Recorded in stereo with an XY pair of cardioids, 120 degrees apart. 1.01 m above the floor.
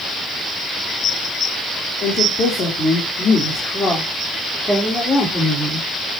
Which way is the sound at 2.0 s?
50° left.